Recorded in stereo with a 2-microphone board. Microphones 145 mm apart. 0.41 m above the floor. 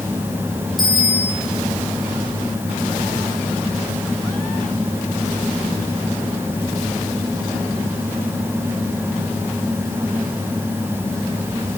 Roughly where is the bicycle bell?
Centre.